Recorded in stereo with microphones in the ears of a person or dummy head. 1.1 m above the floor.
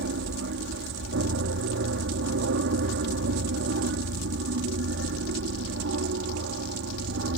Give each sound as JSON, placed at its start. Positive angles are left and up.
{"t": 0.0, "sound": "an aircraft", "side_deg": -60}